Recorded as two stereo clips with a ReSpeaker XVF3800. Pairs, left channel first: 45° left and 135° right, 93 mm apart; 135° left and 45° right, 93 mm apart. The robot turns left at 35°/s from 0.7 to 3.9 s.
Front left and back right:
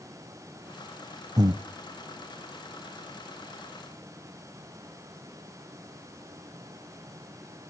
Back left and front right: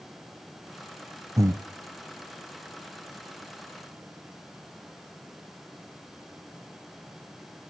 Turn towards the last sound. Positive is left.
turn(degrees=175)